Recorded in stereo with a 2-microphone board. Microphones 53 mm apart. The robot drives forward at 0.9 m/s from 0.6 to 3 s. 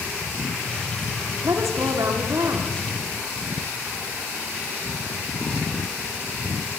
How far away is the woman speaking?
About 9 m.